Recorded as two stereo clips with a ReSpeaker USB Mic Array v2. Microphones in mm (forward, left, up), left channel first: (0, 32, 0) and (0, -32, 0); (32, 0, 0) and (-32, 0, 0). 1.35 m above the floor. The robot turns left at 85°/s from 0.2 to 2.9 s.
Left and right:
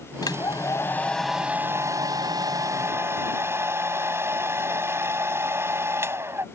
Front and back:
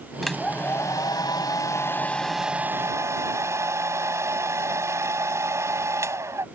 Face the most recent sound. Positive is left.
turn(degrees=-140)